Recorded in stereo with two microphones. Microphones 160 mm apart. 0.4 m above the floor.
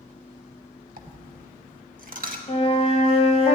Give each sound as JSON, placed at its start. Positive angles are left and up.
{"t": 1.0, "sound": "a dropped coin", "side_deg": -60, "distance_m": 0.9}
{"t": 2.5, "sound": "a flute", "side_deg": 40, "distance_m": 1.1}